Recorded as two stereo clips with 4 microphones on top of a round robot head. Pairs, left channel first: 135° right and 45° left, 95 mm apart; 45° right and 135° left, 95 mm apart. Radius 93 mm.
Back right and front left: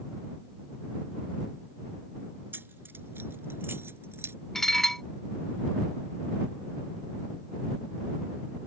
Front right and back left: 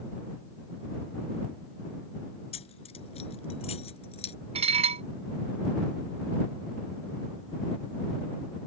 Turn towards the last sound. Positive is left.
turn(degrees=140)